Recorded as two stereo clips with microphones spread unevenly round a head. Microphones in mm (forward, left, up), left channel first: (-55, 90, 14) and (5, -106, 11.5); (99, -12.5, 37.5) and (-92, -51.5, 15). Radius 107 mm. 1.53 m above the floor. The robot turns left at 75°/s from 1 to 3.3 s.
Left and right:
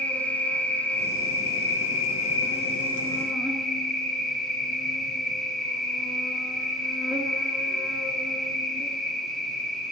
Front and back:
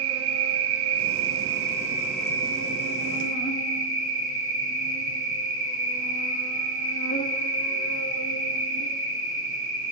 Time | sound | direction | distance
0.0 | an insect | 170° right | 1.9 m